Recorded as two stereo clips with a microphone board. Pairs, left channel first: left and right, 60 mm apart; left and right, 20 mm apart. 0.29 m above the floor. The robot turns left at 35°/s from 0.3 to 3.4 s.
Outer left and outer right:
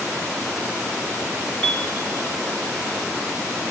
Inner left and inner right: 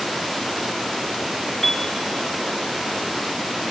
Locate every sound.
1.6 s a piano: 45° left (ahead or behind), 1.6 m; by 1.9 s 55° left (ahead or behind), 1.6 m